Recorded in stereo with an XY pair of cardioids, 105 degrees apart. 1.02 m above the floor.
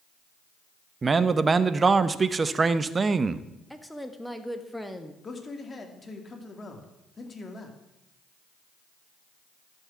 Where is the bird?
I don't hear a bird.